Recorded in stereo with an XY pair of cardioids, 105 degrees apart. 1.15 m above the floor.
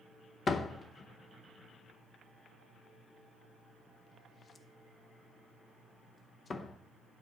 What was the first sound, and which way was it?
A door slam, 40° left.